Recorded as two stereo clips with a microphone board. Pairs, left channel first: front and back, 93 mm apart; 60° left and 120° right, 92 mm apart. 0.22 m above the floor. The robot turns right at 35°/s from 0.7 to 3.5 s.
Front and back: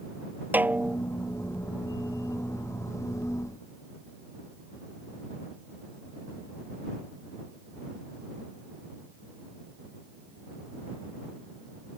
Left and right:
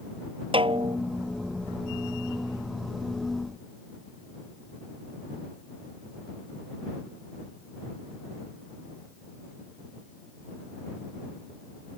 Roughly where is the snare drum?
Right.